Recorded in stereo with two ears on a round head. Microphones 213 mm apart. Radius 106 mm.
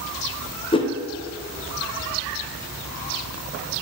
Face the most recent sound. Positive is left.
turn(degrees=20)  # may be behind; listen again after turning